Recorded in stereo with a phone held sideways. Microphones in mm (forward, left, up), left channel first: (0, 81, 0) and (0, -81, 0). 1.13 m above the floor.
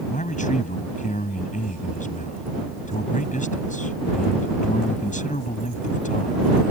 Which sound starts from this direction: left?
A man speaking, at 0.1 s.